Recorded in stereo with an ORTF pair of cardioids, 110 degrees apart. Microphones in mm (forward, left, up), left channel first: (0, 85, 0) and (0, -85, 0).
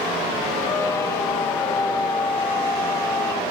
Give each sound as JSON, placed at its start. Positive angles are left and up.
{"t": 0.7, "sound": "a squeak", "azimuth_deg": 20, "distance_m": 0.8}